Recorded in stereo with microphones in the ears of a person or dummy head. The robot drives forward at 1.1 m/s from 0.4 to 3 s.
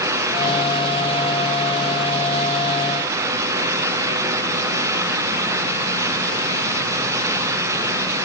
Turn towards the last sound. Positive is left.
No sound to turn to.